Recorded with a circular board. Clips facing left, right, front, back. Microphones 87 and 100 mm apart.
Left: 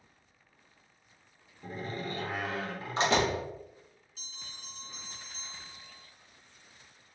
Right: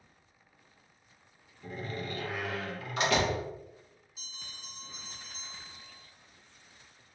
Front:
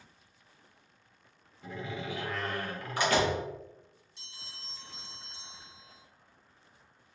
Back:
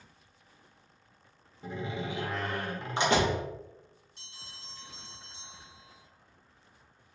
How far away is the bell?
About 1.6 m.